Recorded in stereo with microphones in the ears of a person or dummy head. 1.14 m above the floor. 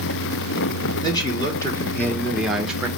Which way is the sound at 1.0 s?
30° left (ahead or behind).